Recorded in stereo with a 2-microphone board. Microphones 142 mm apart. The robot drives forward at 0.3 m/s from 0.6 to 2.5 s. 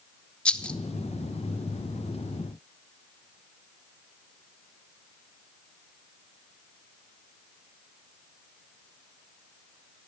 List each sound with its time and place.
0.5 s a rattle: 5° left (ahead or behind), 0.6 m